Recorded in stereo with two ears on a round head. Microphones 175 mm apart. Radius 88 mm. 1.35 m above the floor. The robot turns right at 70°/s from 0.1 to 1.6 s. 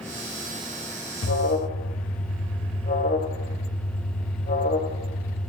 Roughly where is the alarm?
Left.